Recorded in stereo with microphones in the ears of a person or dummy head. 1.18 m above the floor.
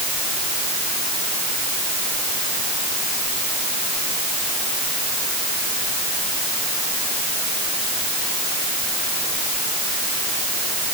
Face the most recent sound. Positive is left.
No sound to turn to.